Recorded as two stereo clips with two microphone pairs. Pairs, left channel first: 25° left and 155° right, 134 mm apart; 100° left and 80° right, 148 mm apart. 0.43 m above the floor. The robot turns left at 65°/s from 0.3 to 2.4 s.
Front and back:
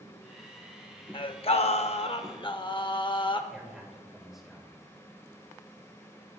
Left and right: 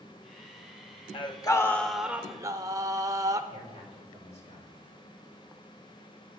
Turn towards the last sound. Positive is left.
turn(degrees=115)